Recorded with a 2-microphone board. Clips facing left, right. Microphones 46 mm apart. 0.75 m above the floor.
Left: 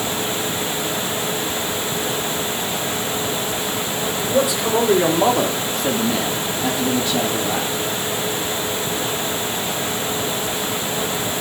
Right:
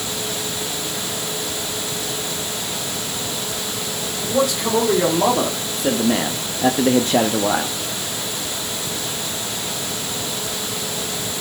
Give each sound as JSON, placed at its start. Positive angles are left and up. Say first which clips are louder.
{"t": 4.2, "sound": "a man speaking", "louder": "even", "side_deg": 15, "distance_m": 2.0}